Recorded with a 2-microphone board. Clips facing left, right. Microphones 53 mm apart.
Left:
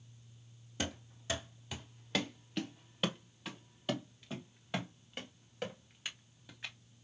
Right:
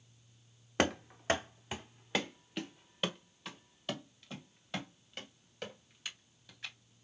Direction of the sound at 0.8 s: 75° right (ahead or behind).